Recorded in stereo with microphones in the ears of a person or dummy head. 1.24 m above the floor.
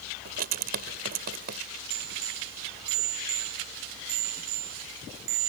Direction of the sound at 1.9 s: 60° right (ahead or behind).